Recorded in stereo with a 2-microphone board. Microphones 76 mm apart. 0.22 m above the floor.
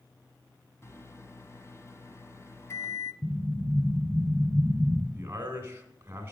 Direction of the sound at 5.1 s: 30° right (ahead or behind).